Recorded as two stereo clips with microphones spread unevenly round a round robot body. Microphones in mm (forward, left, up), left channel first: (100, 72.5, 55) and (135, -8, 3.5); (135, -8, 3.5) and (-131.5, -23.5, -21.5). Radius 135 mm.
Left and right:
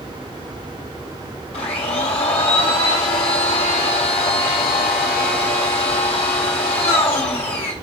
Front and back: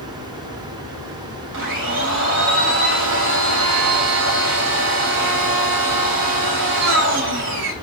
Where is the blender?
135° left, 3 m.